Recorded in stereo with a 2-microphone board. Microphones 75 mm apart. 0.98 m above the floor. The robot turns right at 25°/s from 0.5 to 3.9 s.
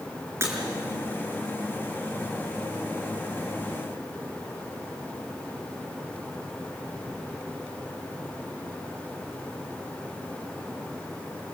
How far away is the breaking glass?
About 6 m.